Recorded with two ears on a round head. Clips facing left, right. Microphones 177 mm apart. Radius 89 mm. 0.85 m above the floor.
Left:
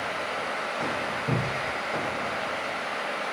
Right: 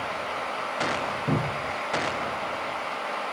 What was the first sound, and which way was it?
A cupboard door, 25° right (ahead or behind).